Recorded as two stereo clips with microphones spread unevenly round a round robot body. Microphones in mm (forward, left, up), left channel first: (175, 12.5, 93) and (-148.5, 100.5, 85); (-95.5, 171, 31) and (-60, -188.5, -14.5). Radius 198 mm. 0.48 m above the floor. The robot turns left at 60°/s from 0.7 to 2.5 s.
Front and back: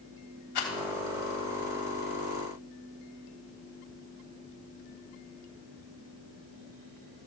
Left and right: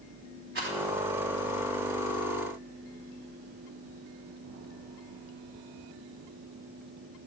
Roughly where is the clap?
No clap in this recording.